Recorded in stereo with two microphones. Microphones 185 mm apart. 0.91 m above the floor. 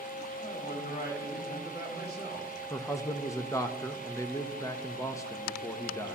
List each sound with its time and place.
0.4 s a man speaking: 60° left (ahead or behind), 2 m
2.7 s a man speaking: 15° left (ahead or behind), 0.5 m